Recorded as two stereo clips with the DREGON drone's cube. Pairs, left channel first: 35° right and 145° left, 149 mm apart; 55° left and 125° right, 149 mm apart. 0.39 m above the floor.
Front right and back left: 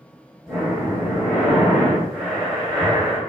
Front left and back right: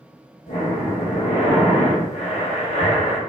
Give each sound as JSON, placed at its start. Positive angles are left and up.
{"t": 0.5, "sound": "breathing", "azimuth_deg": 65, "distance_m": 1.7}